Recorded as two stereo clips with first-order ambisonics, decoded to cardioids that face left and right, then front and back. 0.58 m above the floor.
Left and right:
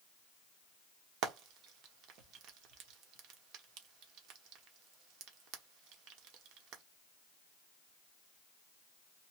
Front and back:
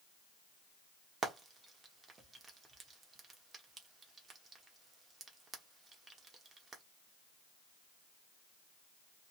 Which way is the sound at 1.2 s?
110° right.